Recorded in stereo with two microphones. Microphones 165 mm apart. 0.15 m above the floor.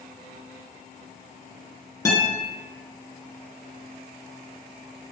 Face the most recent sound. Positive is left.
turn(degrees=20)  # may be behind; listen again after turning